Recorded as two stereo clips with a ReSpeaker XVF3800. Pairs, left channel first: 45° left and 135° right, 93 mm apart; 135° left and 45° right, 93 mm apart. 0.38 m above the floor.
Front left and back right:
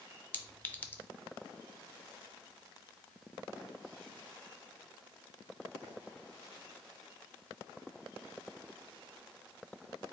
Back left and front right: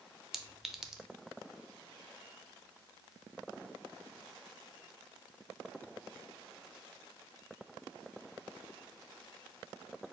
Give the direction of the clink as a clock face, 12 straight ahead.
11 o'clock.